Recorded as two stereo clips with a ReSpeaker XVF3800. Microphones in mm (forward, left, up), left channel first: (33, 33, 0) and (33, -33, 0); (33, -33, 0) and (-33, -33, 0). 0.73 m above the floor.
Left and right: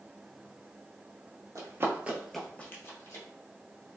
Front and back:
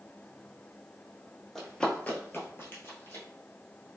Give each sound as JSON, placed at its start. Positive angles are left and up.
{"t": 1.6, "sound": "running footsteps", "azimuth_deg": -85, "distance_m": 1.0}